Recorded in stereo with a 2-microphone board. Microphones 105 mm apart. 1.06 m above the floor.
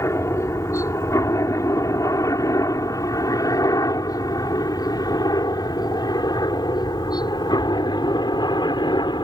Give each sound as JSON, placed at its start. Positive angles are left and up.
{"t": 0.0, "sound": "a helicopter", "side_deg": 25}